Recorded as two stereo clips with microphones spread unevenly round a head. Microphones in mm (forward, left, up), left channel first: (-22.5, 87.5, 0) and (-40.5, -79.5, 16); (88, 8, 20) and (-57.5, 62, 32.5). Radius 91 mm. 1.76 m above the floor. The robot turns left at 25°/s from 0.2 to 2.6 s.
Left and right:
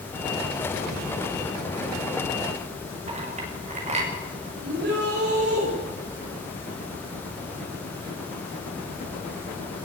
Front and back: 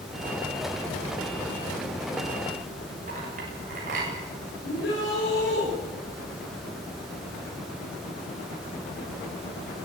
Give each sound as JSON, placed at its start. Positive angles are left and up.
{"t": 3.1, "sound": "a clink", "azimuth_deg": -150, "distance_m": 7.0}
{"t": 4.6, "sound": "a shout", "azimuth_deg": -55, "distance_m": 7.0}